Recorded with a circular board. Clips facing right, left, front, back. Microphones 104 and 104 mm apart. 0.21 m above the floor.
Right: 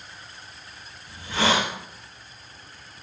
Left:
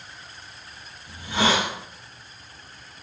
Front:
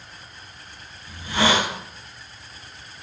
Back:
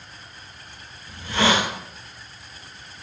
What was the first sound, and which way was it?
A hiss, 65° left.